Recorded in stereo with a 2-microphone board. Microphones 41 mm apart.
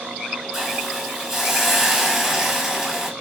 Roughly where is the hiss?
Centre.